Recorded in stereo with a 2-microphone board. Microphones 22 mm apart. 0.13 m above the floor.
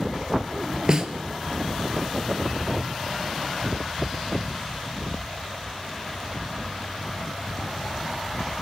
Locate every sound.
0.9 s a snare drum: 30° right (ahead or behind), 1.2 m